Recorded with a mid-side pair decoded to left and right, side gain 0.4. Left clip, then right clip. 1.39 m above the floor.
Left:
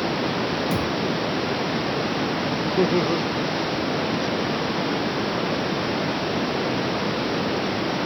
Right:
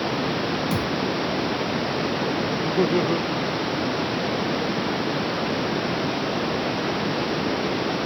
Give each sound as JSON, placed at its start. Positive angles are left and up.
{"t": 0.7, "sound": "a thud", "azimuth_deg": -10}
{"t": 2.6, "sound": "laughter", "azimuth_deg": 0}